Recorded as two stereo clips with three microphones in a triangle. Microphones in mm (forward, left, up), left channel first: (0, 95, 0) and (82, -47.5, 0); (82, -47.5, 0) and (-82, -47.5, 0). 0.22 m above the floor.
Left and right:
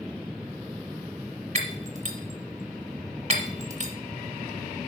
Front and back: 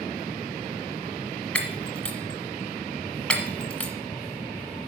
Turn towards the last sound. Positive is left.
turn(degrees=-80)